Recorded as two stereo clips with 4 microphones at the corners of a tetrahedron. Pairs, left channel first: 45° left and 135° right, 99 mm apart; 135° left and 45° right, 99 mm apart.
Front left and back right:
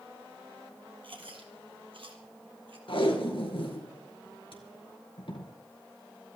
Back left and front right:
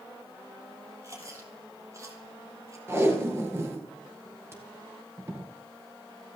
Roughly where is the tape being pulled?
Ahead.